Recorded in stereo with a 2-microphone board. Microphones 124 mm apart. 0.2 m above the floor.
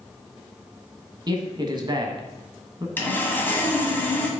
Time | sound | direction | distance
1.3 | a man speaking | 35° right (ahead or behind) | 1.2 m
3.0 | sawing | 15° left (ahead or behind) | 1.3 m